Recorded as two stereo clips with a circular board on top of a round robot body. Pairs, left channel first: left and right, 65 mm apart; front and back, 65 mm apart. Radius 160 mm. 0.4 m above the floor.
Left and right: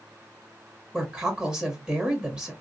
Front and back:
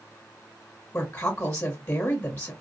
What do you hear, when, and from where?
0.9 s a woman speaking: 40° right, 1.4 m